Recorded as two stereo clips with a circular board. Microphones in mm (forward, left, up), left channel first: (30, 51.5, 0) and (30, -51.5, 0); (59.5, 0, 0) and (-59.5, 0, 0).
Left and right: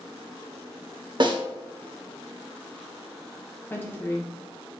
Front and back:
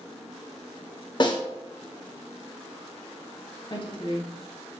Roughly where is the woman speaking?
Ahead left.